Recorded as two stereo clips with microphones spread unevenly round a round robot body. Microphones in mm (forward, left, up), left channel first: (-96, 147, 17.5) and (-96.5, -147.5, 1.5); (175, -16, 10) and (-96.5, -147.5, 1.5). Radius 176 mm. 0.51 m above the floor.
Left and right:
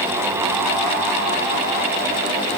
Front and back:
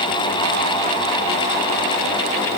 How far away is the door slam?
No door slam in this recording.